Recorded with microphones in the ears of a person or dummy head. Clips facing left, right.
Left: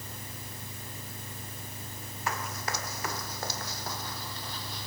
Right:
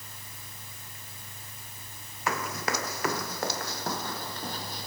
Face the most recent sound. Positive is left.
turn(degrees=-40)  # may be behind; listen again after turning